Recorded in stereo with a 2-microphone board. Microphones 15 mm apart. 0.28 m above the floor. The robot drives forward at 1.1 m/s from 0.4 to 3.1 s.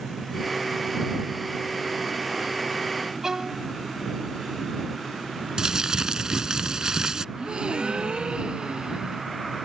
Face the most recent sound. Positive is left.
turn(degrees=-80)